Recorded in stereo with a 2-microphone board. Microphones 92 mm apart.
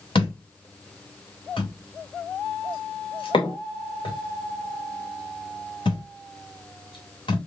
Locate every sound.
0.1 s a thud: 65° left (ahead or behind), 1.8 m